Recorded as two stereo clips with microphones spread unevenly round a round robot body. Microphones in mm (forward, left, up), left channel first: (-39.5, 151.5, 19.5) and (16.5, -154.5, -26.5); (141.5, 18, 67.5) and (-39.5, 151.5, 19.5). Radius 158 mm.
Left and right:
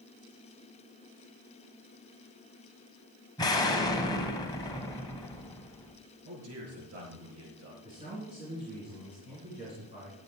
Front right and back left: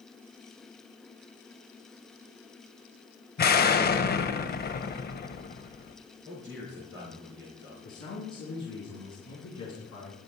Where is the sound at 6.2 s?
125° right, 5.5 m.